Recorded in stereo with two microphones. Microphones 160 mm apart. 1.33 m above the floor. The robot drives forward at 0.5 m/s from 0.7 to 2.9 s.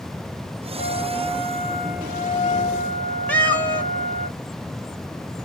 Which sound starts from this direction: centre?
A cat meowing, at 3.3 s.